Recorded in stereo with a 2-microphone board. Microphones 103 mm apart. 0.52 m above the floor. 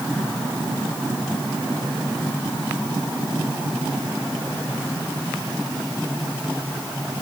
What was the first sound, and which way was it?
Only background noise.